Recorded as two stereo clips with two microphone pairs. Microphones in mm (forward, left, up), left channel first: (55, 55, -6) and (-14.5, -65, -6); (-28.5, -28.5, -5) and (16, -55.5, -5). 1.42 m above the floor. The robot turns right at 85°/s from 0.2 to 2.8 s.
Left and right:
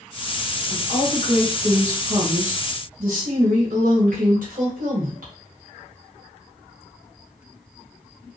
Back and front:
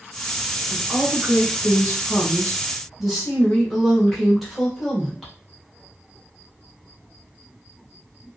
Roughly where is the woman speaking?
Ahead left.